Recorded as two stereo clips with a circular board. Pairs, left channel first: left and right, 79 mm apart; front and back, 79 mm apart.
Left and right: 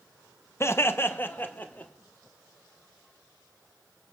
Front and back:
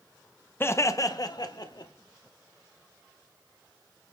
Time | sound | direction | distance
0.6 | laughter | 50° left | 0.5 m